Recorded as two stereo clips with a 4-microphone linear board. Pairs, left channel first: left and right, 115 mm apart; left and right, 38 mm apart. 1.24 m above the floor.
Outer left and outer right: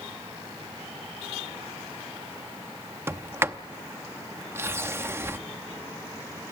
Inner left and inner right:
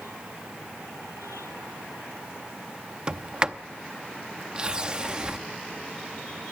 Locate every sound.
3.1 s a sliding door: 20° right (ahead or behind), 0.7 m